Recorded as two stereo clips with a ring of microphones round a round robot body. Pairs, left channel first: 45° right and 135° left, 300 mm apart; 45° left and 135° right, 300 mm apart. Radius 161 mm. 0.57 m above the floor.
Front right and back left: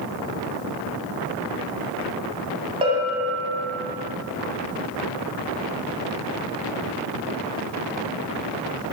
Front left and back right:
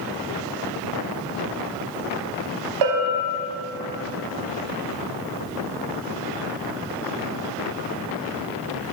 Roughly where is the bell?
Behind right.